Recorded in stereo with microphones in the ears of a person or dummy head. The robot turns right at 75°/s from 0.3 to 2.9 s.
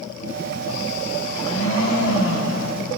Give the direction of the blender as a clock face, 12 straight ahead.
11 o'clock.